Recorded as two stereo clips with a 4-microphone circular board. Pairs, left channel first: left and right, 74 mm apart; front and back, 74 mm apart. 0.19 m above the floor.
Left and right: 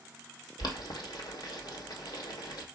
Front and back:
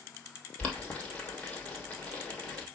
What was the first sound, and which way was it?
Boiling, 75° left.